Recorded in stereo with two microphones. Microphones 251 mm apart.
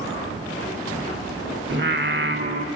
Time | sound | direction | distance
1.7 | singing | 45° right (ahead or behind) | 1.1 m